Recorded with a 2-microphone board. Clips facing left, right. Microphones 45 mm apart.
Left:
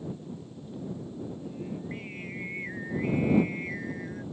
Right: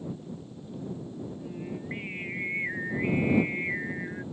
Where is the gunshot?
I don't hear a gunshot.